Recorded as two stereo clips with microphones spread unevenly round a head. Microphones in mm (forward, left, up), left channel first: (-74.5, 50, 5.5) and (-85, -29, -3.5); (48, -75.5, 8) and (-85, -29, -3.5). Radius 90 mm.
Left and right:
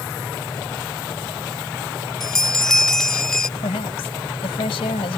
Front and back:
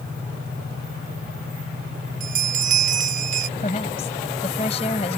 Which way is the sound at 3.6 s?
40° left.